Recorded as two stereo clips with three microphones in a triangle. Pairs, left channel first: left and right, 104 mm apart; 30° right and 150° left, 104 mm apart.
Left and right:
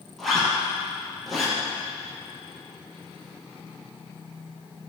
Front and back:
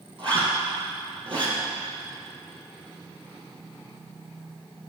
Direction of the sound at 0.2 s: Straight behind.